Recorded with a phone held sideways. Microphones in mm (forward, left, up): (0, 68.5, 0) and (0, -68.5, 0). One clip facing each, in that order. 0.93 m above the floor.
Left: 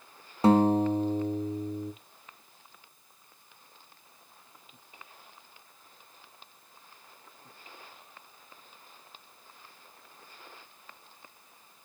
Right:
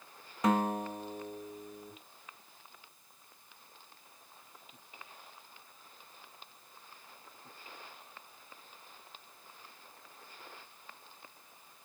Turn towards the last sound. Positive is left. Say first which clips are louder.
# left 9 dB
turn(degrees=30)  # may be behind; listen again after turning